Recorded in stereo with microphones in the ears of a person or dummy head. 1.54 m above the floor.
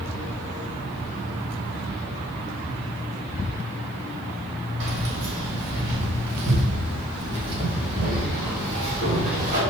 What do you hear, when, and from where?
4.8 s keys jangling: 70° right (ahead or behind), 2.5 m; by 9.6 s 45° right (ahead or behind), 4.5 m